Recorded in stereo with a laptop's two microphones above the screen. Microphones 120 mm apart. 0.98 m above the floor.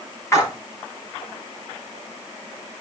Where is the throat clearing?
No throat clearing in this recording.